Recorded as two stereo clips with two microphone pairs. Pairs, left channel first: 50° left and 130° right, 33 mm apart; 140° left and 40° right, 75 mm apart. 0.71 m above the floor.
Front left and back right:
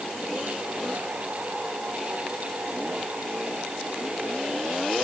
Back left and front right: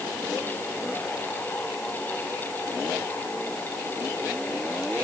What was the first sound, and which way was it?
Only background noise.